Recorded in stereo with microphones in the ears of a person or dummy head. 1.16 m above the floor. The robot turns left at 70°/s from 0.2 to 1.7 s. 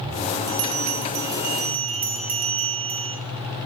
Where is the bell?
55° right, 0.6 m; by 3.1 s 140° right, 0.6 m.